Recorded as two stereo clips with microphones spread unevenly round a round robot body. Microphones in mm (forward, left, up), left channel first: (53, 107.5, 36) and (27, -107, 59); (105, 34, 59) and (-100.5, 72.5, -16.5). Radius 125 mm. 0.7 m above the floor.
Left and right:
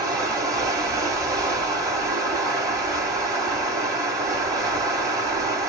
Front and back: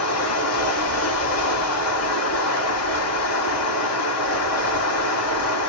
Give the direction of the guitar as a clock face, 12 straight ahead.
No guitar in this recording.